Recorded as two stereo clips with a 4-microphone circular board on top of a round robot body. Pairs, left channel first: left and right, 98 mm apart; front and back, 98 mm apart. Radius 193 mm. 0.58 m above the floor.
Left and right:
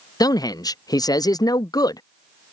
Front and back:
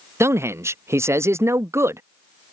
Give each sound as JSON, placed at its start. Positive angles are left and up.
{"t": 0.2, "sound": "a man speaking", "azimuth_deg": 125}